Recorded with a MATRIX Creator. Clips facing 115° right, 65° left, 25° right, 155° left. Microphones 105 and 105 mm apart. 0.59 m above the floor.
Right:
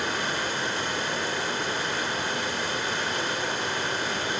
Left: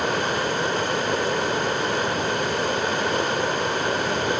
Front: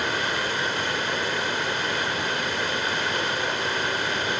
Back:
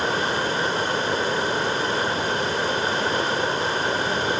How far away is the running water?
About 0.8 m.